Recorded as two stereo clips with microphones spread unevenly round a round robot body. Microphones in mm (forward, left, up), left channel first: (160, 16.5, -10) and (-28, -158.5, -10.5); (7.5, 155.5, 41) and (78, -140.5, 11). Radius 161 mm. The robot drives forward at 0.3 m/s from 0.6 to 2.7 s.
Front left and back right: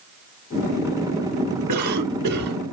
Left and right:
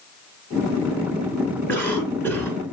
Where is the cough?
170° right, 3 m.